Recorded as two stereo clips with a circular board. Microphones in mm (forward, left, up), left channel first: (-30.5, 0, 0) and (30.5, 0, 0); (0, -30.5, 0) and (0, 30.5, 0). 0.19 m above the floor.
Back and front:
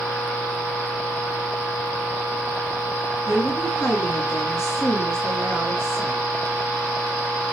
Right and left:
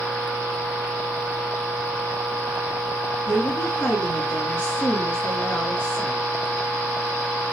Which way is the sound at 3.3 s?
150° right.